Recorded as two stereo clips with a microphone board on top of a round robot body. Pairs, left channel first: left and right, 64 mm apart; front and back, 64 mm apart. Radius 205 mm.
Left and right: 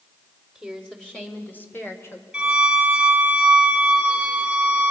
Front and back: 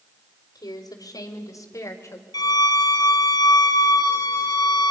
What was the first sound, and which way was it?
A woman speaking, straight ahead.